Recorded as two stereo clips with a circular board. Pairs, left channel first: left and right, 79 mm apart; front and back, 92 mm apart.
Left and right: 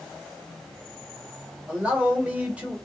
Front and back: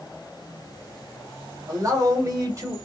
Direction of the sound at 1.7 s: 155° right.